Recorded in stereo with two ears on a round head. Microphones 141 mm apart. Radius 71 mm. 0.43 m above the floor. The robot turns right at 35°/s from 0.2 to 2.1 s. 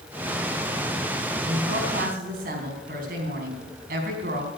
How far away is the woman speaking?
About 4 m.